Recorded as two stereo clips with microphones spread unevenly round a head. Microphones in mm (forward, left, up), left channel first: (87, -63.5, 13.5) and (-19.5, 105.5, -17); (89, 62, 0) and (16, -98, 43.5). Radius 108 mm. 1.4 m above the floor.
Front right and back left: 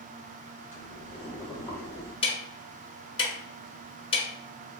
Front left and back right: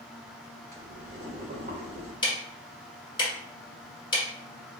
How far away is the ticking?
About 1.2 m.